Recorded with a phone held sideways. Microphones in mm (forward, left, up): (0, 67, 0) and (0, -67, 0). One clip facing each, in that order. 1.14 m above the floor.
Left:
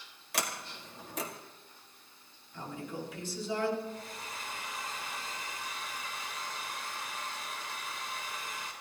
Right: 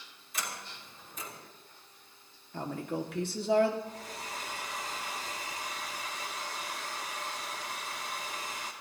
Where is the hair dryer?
85° right, 2 m.